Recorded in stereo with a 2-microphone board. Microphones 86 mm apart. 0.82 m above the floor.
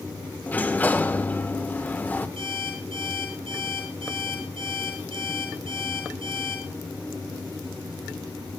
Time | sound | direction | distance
0.5 | a sliding door | 20° left (ahead or behind) | 1.3 m
2.4 | an alarm clock | 85° right | 8.5 m